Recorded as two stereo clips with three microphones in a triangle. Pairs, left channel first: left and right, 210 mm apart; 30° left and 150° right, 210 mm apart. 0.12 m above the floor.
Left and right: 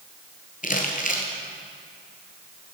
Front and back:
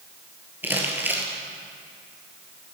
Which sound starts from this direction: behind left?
Crumpling, at 0.6 s.